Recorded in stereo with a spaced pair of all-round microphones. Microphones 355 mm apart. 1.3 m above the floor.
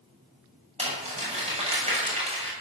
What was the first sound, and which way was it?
Crumpling, 15° right (ahead or behind).